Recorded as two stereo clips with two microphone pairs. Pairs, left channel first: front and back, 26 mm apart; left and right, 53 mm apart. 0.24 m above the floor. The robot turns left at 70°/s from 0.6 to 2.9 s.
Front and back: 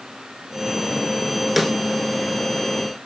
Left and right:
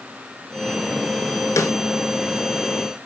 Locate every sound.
1.6 s a snare drum: 100° left, 0.6 m; by 1.7 s 90° left, 0.6 m